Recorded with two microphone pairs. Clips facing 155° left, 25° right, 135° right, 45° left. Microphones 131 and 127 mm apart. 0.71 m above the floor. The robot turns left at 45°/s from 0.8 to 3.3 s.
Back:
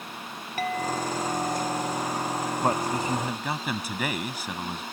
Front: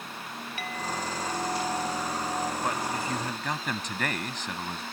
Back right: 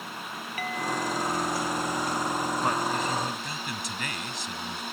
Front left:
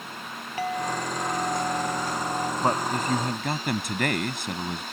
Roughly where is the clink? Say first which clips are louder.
Back 7 dB, front left 3 dB; left.